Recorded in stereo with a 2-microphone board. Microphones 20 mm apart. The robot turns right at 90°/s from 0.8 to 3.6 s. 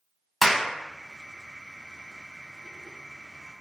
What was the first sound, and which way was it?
A clap, 10° left (ahead or behind).